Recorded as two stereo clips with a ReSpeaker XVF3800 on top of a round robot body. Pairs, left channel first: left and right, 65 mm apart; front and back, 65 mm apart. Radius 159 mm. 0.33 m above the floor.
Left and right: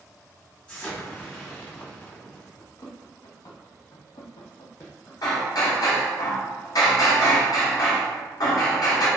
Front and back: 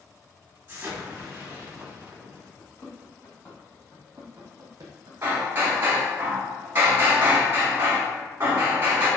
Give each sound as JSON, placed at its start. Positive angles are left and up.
{"t": 0.7, "sound": "an explosion", "azimuth_deg": 145, "distance_m": 1.7}
{"t": 2.6, "sound": "running footsteps", "azimuth_deg": 55, "distance_m": 1.8}
{"t": 5.2, "sound": "hammering", "azimuth_deg": 120, "distance_m": 0.9}